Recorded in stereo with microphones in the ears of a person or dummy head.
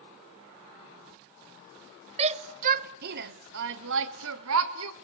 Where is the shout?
30° right (ahead or behind), 1.1 m; by 4.9 s 85° right, 1.9 m.